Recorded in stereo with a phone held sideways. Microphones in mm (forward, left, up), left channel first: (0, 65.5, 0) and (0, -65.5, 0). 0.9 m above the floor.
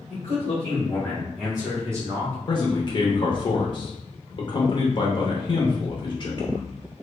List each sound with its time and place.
0.1 s a man speaking: 45° left (ahead or behind), 1.3 m; by 2.4 s 35° right (ahead or behind), 1.1 m
2.5 s a man speaking: 40° left (ahead or behind), 0.6 m